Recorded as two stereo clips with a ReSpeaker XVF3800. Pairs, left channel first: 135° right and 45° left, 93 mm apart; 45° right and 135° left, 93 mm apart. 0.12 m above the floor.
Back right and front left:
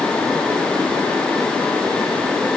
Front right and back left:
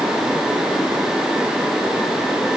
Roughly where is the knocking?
I don't hear knocking.